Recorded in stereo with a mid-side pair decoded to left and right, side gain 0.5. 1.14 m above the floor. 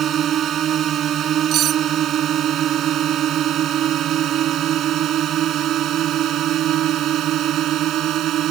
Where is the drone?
55° right; by 8.5 s 65° right.